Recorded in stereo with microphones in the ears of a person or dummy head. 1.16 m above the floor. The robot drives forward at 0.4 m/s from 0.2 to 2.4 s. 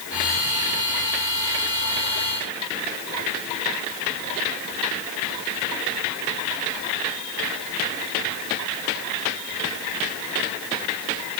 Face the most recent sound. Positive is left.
No sound to turn to.